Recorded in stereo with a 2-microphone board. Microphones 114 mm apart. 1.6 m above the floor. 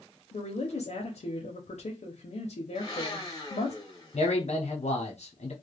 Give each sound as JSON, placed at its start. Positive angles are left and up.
{"t": 0.3, "sound": "a woman speaking", "side_deg": 75, "distance_m": 0.6}
{"t": 2.8, "sound": "a blender", "side_deg": 35, "distance_m": 1.2}
{"t": 4.1, "sound": "a man speaking", "side_deg": 80, "distance_m": 0.7}